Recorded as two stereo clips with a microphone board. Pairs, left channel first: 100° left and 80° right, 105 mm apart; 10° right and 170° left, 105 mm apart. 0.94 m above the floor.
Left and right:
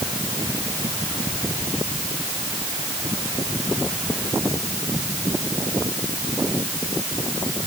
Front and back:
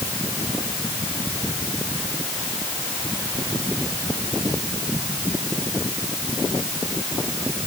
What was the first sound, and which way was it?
Only background noise.